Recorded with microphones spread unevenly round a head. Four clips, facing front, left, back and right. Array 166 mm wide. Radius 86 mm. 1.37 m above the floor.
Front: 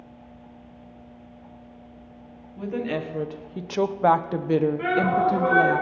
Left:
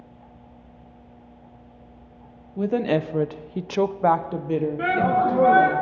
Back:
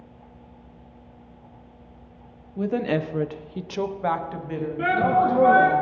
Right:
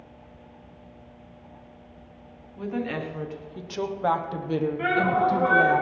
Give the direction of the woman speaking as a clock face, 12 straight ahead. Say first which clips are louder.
Left 8 dB, back 4 dB; 8 o'clock.